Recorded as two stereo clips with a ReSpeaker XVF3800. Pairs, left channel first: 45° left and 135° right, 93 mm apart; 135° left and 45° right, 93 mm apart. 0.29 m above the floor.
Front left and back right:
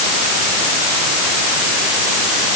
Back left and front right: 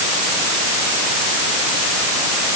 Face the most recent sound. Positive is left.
No sound to turn to.